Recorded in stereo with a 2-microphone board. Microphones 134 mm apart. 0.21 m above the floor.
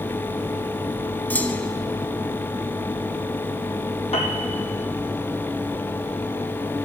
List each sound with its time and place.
1.3 s a clunk: 15° left (ahead or behind), 0.7 m
4.1 s a piano: 50° left (ahead or behind), 1.4 m